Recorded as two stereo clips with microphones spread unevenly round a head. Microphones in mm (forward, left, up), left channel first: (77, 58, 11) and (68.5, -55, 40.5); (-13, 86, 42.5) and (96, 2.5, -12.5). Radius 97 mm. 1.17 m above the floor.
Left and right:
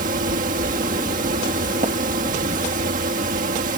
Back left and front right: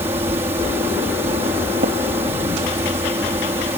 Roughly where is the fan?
Right.